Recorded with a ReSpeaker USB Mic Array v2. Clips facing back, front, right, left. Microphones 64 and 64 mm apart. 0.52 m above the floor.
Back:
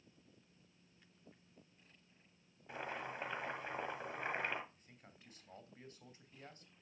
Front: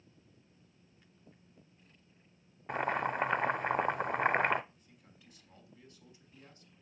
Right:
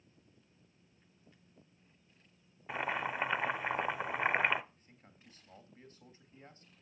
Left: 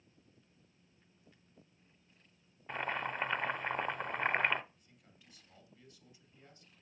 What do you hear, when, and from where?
2.7 s boiling: 5° right, 0.5 m
4.7 s a man speaking: 135° right, 3 m